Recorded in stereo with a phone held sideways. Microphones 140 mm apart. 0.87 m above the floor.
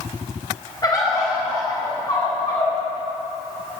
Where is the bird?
30° left (ahead or behind), 4 m.